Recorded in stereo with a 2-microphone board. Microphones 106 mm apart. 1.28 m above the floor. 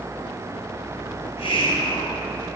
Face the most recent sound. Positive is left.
turn(degrees=65)  # may be behind; listen again after turning